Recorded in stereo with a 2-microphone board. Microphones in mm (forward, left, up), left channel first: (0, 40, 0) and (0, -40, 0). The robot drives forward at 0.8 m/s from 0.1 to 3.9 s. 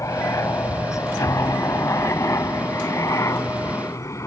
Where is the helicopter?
40° left (ahead or behind).